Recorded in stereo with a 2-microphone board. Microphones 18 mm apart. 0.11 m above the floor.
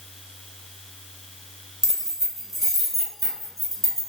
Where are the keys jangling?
25° right (ahead or behind), 1.3 m; by 4.1 s 15° left (ahead or behind), 1.1 m.